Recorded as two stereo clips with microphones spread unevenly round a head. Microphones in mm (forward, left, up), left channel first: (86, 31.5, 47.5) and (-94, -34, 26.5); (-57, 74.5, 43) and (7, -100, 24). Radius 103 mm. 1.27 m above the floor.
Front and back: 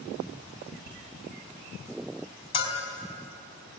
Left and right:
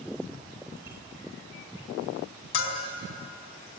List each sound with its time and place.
0.8 s a bicycle bell: 150° right, 5 m
2.5 s a bell: 85° left, 3 m